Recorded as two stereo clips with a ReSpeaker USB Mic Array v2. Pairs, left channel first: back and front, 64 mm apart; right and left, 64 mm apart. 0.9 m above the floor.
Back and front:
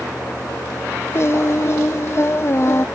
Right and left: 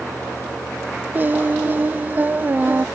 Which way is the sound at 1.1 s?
140° left.